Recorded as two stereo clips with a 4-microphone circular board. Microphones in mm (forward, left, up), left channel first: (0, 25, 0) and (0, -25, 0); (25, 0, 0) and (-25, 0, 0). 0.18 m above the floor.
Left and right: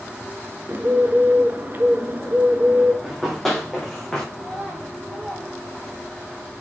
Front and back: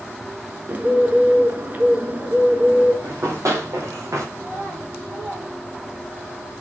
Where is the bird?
130° right, 0.7 m.